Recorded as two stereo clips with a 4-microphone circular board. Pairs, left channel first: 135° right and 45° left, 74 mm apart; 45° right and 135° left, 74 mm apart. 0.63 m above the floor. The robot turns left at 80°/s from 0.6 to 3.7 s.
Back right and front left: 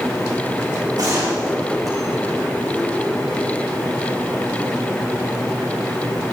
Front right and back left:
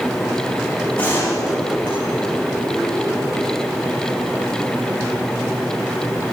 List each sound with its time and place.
1.0 s a gunshot: 25° left, 9.5 m; by 2.3 s 85° right, 9.5 m